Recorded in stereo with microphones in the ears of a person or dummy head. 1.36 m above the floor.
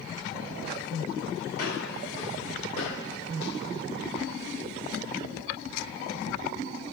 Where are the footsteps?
45° left (ahead or behind), 3.5 m; by 4.5 s 20° left (ahead or behind), 3 m.